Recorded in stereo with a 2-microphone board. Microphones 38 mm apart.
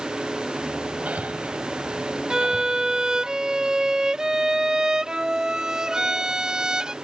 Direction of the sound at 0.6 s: 40° right (ahead or behind).